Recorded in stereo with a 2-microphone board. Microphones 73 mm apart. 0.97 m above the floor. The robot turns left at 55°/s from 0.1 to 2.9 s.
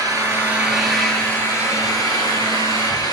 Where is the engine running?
140° right, 6 m; by 3.1 s 65° left, 6 m.